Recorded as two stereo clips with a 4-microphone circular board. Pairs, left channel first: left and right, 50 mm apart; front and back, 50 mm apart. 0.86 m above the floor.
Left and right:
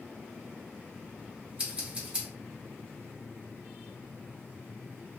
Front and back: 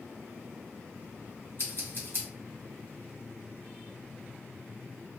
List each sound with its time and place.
1.6 s scissors: 25° right, 1.4 m